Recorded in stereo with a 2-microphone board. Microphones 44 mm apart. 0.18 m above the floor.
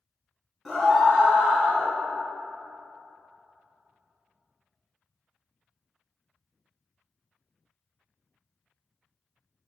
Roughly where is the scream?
Centre.